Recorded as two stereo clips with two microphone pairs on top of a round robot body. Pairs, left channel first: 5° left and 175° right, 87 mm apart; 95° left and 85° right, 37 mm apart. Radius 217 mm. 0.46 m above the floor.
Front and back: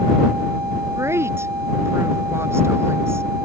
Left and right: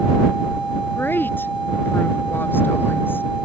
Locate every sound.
1.0 s a woman speaking: 125° left